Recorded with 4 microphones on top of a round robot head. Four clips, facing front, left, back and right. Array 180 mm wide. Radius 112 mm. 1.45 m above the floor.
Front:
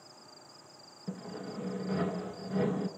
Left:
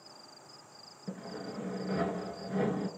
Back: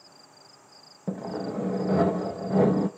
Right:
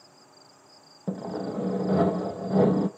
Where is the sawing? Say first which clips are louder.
Right 10 dB, back 10 dB; 135° right, 0.9 m.